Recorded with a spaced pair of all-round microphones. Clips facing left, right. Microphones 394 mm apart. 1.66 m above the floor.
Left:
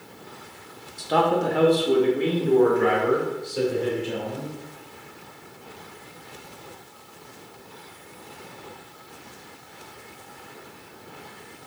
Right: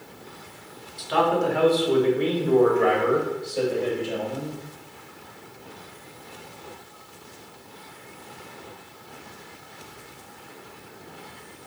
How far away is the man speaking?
About 1.4 m.